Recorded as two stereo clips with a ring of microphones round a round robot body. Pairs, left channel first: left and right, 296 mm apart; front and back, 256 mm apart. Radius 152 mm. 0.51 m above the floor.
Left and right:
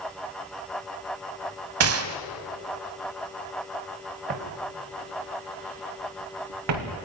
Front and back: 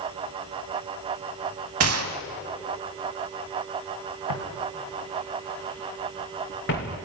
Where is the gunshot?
135° right, 0.9 m.